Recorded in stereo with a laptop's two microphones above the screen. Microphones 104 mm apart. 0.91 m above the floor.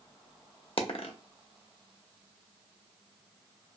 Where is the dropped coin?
60° left (ahead or behind), 0.6 m.